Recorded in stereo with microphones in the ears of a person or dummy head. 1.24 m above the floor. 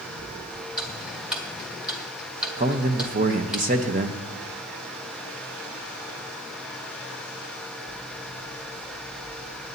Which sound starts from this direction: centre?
Ticking, at 0.8 s.